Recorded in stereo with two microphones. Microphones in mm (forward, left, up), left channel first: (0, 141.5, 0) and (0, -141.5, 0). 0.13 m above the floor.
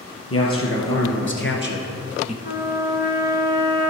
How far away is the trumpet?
About 1.1 m.